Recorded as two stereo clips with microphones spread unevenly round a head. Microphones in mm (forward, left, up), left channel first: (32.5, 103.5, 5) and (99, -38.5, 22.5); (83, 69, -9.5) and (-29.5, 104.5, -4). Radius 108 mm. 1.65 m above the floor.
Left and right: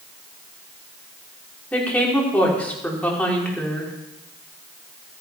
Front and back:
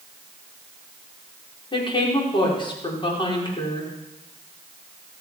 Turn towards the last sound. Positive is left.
turn(degrees=30)